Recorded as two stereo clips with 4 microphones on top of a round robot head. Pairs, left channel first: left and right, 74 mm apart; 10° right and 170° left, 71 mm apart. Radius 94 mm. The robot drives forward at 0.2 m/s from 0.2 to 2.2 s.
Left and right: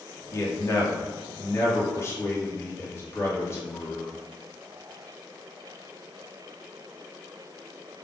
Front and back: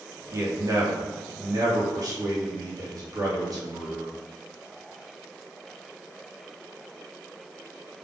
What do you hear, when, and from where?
0.3 s a man speaking: 135° left, 1.4 m; by 4.1 s 145° left, 1.7 m